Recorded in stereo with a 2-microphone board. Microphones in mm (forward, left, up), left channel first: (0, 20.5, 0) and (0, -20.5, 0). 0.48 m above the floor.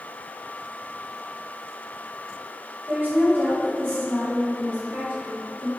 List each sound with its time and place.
2.9 s a woman speaking: 55° right (ahead or behind), 2.5 m; by 5.7 s 65° right (ahead or behind), 3.5 m